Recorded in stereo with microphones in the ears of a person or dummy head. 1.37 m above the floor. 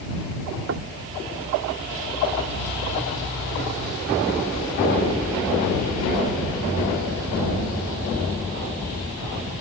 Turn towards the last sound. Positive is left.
turn(degrees=-70)  # may be behind; listen again after turning